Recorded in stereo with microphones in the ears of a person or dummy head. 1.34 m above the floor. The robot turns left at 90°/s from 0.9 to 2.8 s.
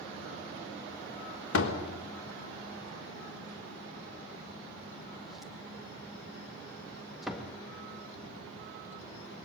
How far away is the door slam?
About 1.6 m.